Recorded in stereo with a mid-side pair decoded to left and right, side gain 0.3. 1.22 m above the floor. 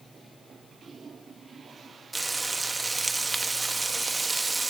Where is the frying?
30° right, 1.3 m.